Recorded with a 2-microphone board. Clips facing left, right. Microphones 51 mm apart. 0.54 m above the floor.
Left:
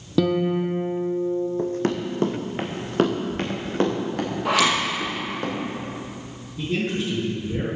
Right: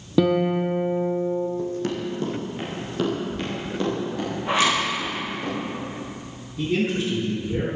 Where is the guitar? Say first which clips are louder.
Right 1 dB; 10° right (ahead or behind), 0.8 m.